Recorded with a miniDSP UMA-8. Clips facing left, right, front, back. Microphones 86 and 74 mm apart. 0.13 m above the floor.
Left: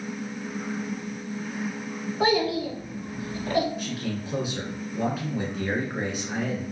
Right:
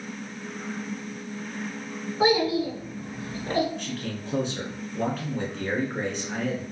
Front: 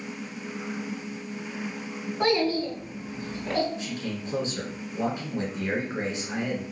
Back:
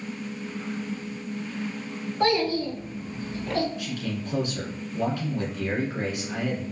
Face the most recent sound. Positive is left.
turn(degrees=15)